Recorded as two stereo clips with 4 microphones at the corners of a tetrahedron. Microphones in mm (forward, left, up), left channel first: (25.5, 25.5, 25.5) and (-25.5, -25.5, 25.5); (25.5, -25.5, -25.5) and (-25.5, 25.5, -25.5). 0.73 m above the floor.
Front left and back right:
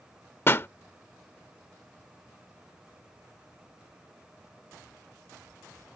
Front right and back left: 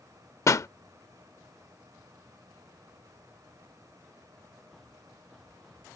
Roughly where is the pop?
Ahead.